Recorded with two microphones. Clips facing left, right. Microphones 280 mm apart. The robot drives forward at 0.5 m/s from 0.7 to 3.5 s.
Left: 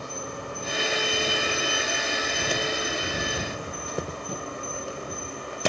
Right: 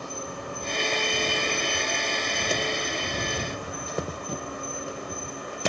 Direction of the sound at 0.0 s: 25° left (ahead or behind).